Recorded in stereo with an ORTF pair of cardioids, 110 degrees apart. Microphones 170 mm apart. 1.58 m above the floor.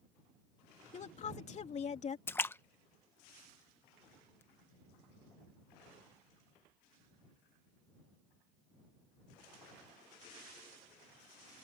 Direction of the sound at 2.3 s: 15° left.